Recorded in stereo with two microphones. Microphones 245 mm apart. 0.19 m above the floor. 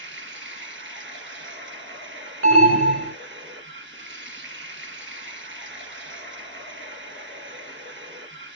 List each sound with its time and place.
0.0 s running water: 50° right (ahead or behind), 2.5 m
2.4 s an alarm: 55° right (ahead or behind), 1.5 m